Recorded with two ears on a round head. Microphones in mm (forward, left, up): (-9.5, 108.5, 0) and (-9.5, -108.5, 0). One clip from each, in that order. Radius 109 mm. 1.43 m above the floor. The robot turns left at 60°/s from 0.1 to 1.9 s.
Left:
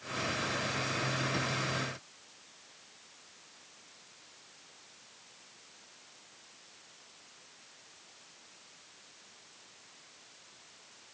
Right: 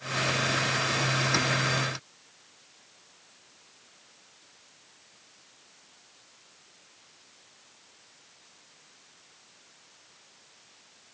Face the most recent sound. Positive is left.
No sound to turn to.